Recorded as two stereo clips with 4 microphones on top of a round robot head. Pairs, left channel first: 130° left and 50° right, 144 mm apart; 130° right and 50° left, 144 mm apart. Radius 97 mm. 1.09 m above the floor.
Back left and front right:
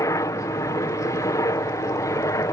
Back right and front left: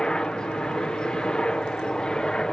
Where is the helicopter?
150° left.